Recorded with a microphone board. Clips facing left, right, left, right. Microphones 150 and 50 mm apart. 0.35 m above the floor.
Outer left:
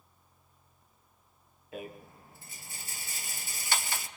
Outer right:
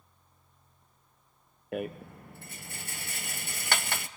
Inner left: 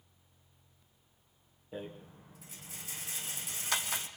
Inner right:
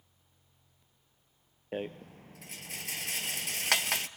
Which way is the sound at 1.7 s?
65° right (ahead or behind).